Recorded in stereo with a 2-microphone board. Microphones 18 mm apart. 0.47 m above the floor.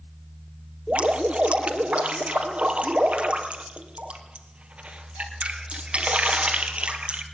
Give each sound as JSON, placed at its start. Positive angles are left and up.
{"t": 0.9, "sound": "dripping", "side_deg": -80, "distance_m": 2.5}